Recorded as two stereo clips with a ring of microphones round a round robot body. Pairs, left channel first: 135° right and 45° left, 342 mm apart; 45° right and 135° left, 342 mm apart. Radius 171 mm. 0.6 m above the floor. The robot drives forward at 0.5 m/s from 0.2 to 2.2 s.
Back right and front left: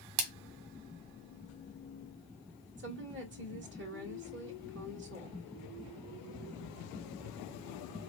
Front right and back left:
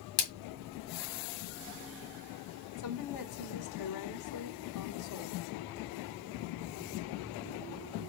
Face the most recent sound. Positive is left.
turn(degrees=-10)